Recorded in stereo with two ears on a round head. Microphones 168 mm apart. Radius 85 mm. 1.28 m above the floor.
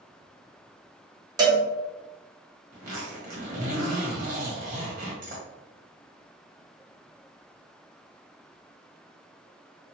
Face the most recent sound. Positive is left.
turn(degrees=-45)  # may be behind; listen again after turning